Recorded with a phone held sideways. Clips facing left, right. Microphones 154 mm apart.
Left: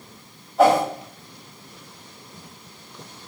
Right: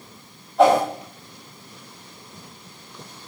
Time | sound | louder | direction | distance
0.6 | a whoosh | right 1 dB | centre (ahead or behind) | 4.5 m